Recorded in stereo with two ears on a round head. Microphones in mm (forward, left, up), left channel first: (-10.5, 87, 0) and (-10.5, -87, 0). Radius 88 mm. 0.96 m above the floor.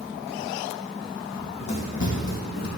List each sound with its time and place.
1.3 s running footsteps: 30° left (ahead or behind), 2 m; by 2.7 s 50° left (ahead or behind), 1.5 m